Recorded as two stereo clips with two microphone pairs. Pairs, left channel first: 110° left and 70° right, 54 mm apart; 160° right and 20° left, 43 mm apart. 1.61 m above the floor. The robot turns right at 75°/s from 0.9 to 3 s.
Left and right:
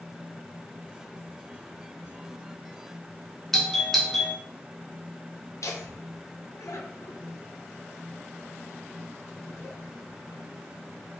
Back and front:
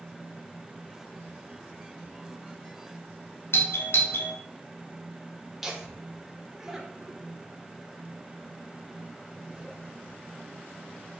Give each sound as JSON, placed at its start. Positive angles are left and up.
{"t": 3.5, "sound": "a doorbell", "azimuth_deg": -170, "distance_m": 0.9}
{"t": 5.6, "sound": "laughter", "azimuth_deg": 105, "distance_m": 1.1}